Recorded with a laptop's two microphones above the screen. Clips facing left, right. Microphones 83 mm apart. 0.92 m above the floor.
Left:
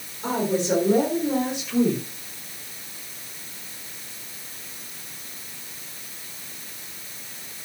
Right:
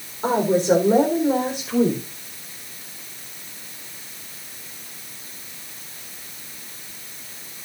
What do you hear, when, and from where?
0.2 s a woman speaking: 40° right (ahead or behind), 4 m; by 2.0 s 30° right (ahead or behind), 4.5 m